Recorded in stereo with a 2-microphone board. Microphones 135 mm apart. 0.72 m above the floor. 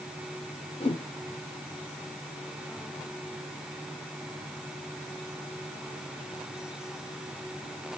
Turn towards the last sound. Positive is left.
turn(degrees=45)  # may be behind; listen again after turning